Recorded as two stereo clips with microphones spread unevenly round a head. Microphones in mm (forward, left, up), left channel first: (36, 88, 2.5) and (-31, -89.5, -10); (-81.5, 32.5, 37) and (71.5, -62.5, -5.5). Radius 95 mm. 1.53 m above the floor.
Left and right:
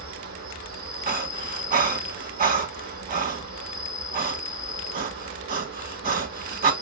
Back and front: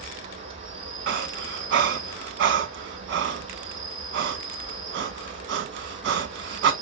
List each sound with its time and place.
0.0 s an insect: 90° right, 4 m
1.1 s breathing: 60° right, 1.8 m